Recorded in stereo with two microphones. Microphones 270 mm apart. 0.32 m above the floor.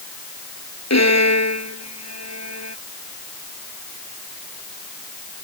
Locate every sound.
0.9 s a violin: 80° left